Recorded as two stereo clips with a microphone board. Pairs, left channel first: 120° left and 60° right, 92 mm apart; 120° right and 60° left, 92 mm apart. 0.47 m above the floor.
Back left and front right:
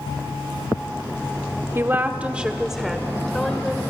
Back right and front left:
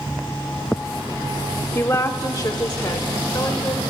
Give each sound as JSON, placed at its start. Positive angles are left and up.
{"t": 1.8, "sound": "a woman speaking", "azimuth_deg": -90, "distance_m": 1.0}